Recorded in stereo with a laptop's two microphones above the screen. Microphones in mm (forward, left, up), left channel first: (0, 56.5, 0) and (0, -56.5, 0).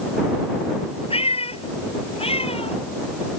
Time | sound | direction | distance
1.1 | a cat meowing | 60° left (ahead or behind) | ?